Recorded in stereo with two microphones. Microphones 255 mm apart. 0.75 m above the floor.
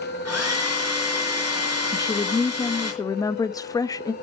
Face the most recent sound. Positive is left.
turn(degrees=15)  # may be behind; listen again after turning